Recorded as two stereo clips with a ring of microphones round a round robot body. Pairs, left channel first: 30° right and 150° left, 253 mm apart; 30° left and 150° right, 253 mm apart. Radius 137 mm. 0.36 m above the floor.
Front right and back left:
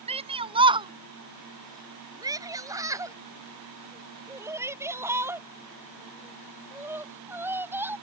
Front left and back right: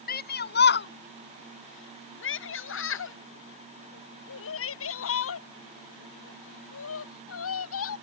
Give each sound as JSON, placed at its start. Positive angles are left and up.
{"t": 0.1, "sound": "a shout", "azimuth_deg": 85}